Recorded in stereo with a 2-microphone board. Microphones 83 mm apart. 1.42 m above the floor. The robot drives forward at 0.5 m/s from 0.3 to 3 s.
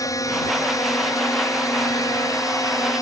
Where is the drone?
45° left (ahead or behind).